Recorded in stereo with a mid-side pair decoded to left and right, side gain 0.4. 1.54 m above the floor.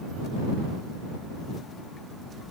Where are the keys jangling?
No keys jangling in this recording.